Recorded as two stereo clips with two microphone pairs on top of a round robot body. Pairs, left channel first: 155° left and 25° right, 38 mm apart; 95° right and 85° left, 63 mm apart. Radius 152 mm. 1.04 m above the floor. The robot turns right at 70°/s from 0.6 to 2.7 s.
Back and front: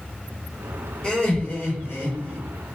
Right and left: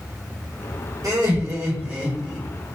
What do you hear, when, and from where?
1.0 s laughter: 85° left, 1.8 m; by 2.4 s straight behind, 1.8 m